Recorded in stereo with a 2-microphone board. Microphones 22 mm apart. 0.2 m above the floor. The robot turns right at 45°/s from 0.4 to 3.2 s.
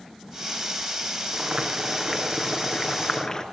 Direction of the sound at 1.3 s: 45° right.